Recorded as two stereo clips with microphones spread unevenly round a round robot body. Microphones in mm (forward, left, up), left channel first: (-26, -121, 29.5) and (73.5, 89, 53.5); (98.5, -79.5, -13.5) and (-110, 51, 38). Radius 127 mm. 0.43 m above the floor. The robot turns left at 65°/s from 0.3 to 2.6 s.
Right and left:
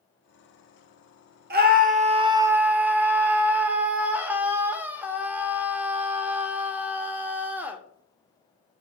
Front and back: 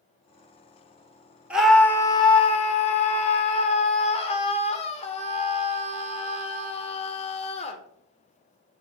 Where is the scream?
50° left, 0.8 m; by 7.8 s 20° right, 0.8 m.